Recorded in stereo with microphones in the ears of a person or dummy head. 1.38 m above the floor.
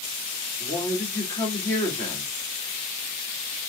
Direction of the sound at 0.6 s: 10° left (ahead or behind).